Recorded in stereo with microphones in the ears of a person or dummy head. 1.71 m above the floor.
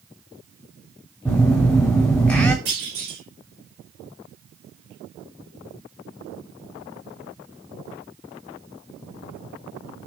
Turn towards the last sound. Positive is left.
turn(degrees=-40)  # may be behind; listen again after turning